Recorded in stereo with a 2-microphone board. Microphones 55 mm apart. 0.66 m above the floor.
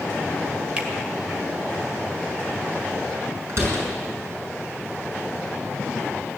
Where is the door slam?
55° right (ahead or behind), 5.5 m.